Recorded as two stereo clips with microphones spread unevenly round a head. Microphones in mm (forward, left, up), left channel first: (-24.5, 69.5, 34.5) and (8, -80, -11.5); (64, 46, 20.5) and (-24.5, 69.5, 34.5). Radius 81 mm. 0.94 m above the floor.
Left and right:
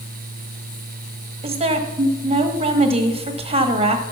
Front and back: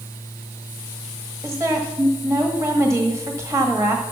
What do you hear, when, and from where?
1.4 s a woman speaking: 125° right, 1.3 m